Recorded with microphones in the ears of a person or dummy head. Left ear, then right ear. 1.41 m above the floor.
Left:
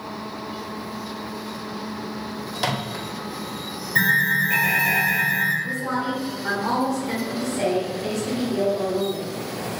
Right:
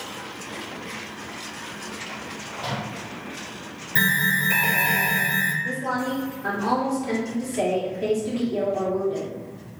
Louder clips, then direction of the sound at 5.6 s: Left 1 dB; 25° right (ahead or behind).